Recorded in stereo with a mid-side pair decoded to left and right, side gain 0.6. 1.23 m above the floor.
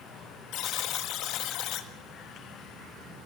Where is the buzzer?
65° left, 1.9 m.